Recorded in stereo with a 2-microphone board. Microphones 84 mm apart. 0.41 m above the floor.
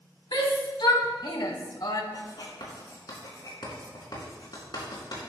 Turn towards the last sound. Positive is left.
turn(degrees=60)  # may be behind; listen again after turning